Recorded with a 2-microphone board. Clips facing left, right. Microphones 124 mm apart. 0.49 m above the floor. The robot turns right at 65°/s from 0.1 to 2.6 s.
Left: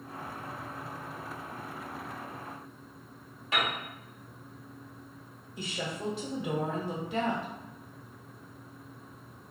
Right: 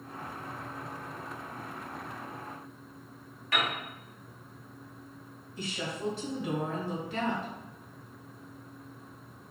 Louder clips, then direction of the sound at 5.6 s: Even; 25° left (ahead or behind).